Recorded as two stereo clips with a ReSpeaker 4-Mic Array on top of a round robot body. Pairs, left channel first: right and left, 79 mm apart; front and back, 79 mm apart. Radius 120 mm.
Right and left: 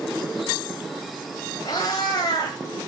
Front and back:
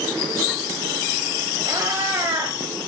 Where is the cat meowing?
130° right, 1.0 m.